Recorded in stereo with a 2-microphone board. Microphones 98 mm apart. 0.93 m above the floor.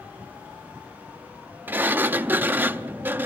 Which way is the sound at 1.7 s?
20° right (ahead or behind).